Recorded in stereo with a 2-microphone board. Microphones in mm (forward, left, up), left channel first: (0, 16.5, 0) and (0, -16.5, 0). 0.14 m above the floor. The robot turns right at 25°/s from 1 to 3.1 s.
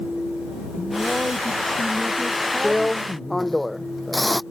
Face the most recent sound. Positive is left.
turn(degrees=5)  # may be behind; listen again after turning